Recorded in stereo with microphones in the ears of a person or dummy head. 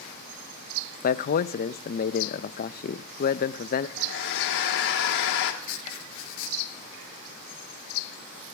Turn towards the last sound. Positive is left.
turn(degrees=85)